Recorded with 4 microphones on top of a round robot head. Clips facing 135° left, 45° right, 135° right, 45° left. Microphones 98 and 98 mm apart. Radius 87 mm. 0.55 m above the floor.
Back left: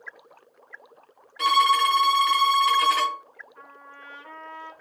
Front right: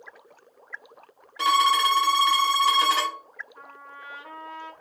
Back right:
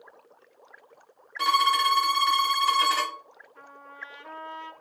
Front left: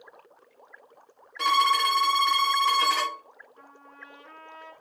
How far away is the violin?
About 1.4 m.